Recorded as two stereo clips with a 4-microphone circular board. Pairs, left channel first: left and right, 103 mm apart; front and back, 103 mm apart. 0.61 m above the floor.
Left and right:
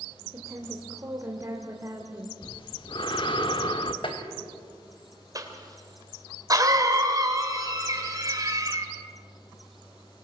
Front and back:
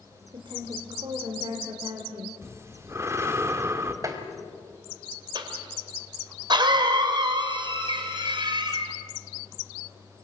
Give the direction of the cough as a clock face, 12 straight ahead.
5 o'clock.